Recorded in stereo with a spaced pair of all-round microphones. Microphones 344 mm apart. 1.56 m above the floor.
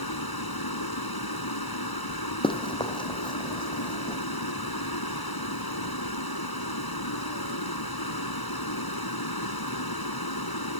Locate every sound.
0.0 s running water: 80° left
2.4 s running footsteps: 15° left (ahead or behind); by 4.2 s 10° left (ahead or behind)